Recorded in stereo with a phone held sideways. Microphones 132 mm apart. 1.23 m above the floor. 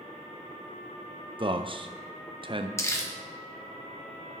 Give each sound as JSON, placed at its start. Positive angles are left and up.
{"t": 1.4, "sound": "a man speaking", "side_deg": -40, "distance_m": 0.6}
{"t": 2.8, "sound": "crumpling", "side_deg": 20, "distance_m": 1.2}